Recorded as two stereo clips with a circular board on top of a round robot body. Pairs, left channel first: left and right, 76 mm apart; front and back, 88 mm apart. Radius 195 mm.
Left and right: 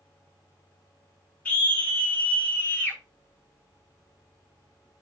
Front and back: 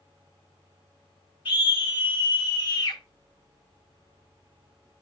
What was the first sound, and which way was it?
A scream, 15° left.